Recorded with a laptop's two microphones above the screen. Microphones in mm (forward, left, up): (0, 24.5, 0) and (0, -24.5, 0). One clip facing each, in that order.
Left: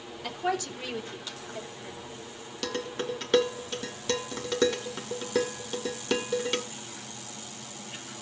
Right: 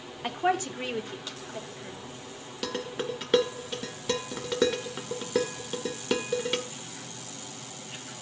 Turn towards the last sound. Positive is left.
turn(degrees=-5)  # may be behind; listen again after turning